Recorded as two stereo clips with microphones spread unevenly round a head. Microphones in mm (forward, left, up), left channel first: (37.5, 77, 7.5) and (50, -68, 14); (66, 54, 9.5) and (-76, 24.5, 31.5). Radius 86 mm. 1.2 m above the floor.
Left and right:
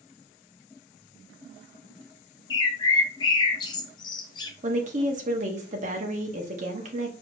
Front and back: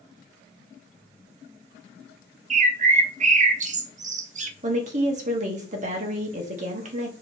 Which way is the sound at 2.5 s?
155° left.